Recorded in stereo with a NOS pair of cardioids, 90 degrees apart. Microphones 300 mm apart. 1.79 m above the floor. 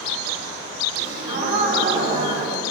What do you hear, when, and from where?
1.0 s a gasp: 40° right, 4 m